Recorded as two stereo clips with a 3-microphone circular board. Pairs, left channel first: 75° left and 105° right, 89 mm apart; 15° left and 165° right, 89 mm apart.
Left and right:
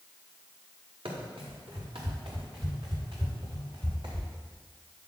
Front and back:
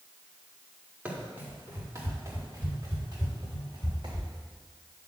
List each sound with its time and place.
1.1 s running footsteps: 95° right, 3.5 m; by 4.3 s 135° right, 6 m